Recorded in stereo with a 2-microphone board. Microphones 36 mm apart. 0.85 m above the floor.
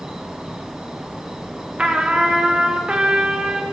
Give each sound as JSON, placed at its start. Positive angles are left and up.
{"t": 0.0, "sound": "an insect", "side_deg": -30, "distance_m": 1.3}
{"t": 1.8, "sound": "a trumpet", "side_deg": -30, "distance_m": 0.8}